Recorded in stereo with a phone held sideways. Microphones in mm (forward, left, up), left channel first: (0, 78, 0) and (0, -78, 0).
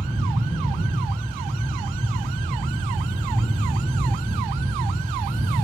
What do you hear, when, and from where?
0.0 s a fan: 65° left (ahead or behind), 2.0 m